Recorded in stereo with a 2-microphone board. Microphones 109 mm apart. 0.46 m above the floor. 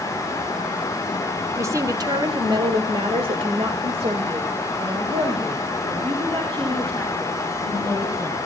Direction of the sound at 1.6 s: 25° right (ahead or behind).